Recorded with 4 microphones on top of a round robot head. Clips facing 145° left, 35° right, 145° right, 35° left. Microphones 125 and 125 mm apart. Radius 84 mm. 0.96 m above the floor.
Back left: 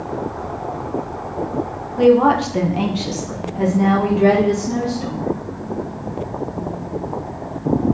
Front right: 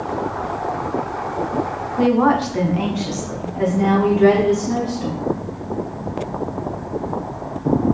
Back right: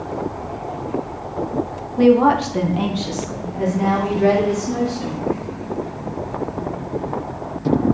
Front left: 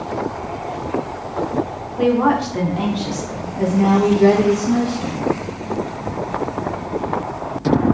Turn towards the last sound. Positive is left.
turn(degrees=80)